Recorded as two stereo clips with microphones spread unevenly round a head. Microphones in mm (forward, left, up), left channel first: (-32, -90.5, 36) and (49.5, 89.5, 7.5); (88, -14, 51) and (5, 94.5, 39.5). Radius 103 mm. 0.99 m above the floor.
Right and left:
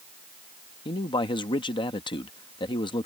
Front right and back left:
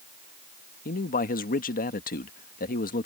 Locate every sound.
0.8 s a man speaking: 45° right